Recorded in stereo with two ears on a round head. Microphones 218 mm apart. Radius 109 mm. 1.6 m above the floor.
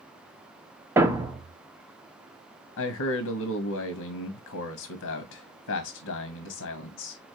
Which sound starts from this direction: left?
A man speaking, at 2.8 s.